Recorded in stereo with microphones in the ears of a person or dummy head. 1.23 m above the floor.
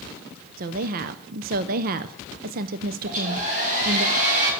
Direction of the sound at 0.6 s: 50° right (ahead or behind).